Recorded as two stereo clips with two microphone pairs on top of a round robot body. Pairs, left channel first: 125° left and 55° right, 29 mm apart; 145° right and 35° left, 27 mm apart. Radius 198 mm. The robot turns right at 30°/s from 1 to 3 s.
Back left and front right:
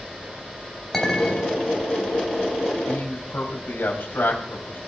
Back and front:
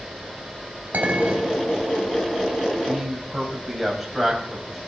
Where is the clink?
45° left, 3.5 m; by 1.5 s 60° left, 3.5 m.